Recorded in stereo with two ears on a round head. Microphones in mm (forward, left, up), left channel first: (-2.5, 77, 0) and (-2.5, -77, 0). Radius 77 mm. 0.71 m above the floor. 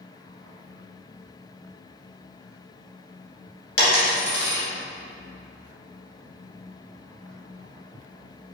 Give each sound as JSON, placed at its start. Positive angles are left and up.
{"t": 3.8, "sound": "a dropped coin", "side_deg": 60, "distance_m": 1.7}